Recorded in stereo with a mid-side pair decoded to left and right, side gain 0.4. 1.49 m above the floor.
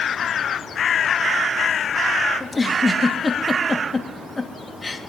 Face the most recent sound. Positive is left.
turn(degrees=20)